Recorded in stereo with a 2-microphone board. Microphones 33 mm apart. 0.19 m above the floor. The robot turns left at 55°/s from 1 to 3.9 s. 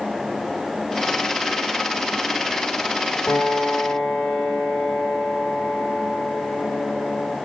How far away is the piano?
About 7 m.